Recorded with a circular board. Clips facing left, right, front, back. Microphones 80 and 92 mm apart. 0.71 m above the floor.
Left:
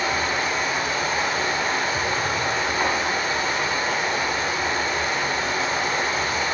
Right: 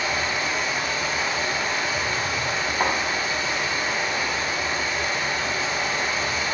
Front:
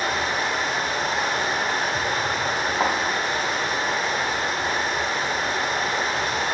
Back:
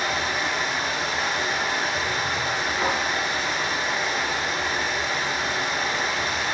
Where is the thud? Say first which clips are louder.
Right 2 dB, front 3 dB; 15° right, 1.9 m.